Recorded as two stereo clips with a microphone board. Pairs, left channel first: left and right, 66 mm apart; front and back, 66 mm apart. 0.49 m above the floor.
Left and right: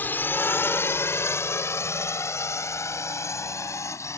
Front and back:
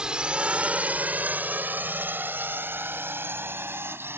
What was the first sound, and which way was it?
A drone, 115° left.